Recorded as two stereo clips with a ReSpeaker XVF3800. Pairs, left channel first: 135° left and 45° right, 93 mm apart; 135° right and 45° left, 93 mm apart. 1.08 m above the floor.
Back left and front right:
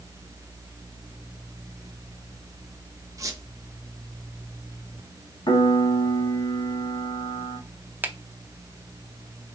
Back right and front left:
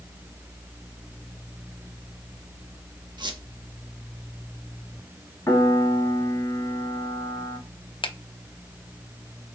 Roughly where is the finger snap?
Behind right.